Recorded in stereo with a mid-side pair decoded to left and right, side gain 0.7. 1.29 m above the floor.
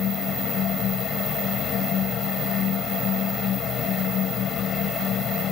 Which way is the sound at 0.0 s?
45° left.